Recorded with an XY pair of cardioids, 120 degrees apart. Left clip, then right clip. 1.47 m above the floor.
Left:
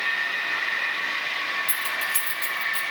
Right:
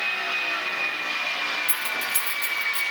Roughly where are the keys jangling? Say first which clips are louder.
Left 1 dB; ahead.